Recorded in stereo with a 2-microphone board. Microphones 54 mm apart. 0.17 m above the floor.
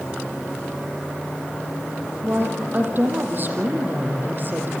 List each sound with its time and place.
2.2 s a woman speaking: 40° right (ahead or behind), 6.5 m